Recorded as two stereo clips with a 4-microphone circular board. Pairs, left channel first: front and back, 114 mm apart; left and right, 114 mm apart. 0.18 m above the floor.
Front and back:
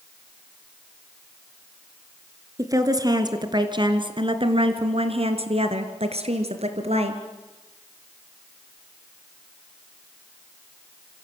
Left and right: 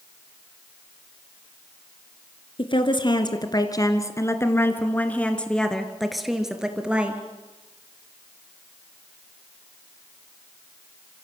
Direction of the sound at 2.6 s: 125° left.